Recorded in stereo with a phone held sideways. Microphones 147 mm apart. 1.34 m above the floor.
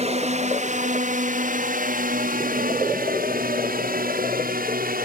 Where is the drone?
45° right (ahead or behind); by 5.0 s 65° right (ahead or behind).